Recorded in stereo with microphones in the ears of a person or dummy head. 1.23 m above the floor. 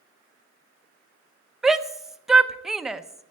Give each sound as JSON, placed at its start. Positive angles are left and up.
{"t": 1.6, "sound": "a shout", "side_deg": 0, "distance_m": 0.8}